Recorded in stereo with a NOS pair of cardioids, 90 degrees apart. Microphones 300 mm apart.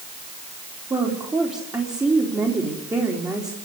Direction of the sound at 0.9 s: 15° right.